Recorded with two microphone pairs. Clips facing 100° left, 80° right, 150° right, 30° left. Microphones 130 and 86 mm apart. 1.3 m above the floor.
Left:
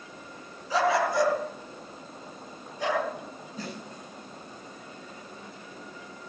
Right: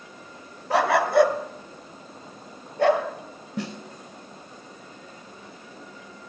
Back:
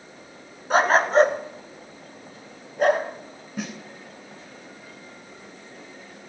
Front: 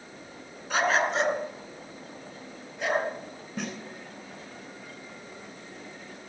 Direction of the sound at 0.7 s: 100° right.